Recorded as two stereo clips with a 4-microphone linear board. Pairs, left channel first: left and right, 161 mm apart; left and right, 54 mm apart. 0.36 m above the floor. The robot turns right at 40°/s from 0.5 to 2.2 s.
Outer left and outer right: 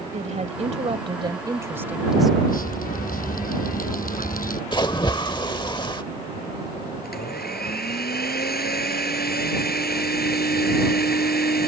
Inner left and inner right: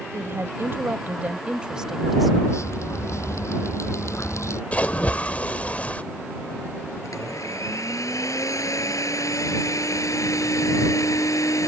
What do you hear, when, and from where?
0.1 s a woman speaking: 70° right; by 2.4 s straight ahead
2.5 s dripping: 60° left (ahead or behind)
4.7 s a splash: 30° left (ahead or behind)
7.0 s a blender: 75° left (ahead or behind)